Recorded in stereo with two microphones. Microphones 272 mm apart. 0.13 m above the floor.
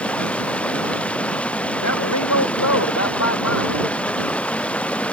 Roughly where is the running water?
Centre.